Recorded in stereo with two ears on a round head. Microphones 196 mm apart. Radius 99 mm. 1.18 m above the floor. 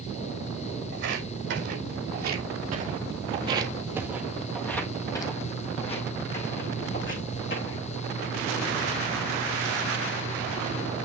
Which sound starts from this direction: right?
Footsteps, at 0.9 s.